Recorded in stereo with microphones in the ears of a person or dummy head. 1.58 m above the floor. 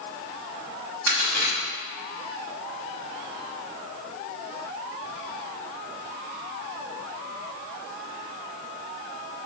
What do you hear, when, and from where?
1.1 s a crack: 80° right, 1.8 m